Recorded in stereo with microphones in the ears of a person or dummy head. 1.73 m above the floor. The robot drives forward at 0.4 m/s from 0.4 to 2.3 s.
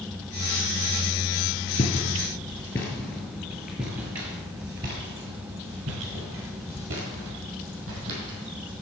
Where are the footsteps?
30° left (ahead or behind), 1.9 m; by 8.7 s 65° right (ahead or behind), 4 m.